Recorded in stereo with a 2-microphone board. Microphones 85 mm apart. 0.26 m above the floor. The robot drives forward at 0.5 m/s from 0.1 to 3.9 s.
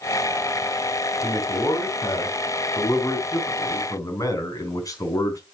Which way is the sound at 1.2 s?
55° left (ahead or behind).